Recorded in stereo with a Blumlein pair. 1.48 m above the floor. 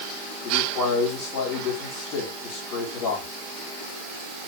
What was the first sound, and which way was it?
A man speaking, 40° left.